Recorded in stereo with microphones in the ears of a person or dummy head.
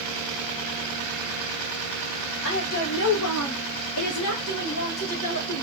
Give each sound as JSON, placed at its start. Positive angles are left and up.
{"t": 2.4, "sound": "a woman speaking", "side_deg": 55, "distance_m": 1.2}